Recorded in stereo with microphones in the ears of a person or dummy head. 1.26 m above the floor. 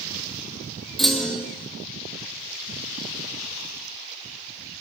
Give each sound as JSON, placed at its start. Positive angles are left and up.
{"t": 1.0, "sound": "a clunk", "side_deg": 0, "distance_m": 0.9}